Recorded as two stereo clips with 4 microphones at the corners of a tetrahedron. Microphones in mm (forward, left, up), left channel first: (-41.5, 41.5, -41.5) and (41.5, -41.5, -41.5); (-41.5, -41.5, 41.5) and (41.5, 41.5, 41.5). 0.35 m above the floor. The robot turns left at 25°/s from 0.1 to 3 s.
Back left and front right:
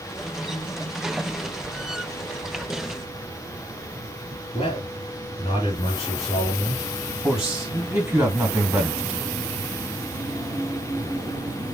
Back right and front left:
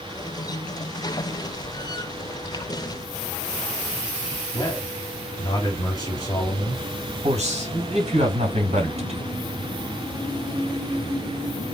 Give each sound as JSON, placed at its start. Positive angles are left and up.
{"t": 4.5, "sound": "a man speaking", "azimuth_deg": 175, "distance_m": 2.0}
{"t": 7.2, "sound": "a man speaking", "azimuth_deg": 35, "distance_m": 3.0}